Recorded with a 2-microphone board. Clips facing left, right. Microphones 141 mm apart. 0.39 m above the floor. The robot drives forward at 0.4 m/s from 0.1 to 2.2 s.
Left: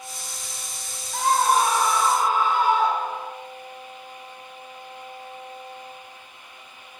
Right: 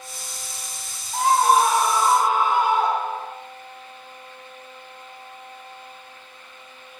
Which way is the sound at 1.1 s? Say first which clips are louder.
Right 3 dB; 20° right (ahead or behind).